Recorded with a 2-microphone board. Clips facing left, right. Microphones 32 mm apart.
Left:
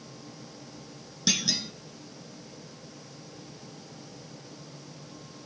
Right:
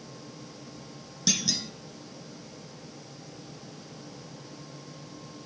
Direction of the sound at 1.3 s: 15° left (ahead or behind).